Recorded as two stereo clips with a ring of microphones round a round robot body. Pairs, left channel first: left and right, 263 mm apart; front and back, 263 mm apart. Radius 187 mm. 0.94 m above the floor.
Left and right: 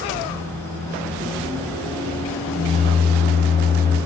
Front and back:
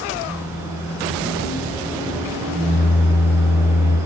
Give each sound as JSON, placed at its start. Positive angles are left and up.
{"t": 0.2, "sound": "a microwave", "azimuth_deg": -110, "distance_m": 1.8}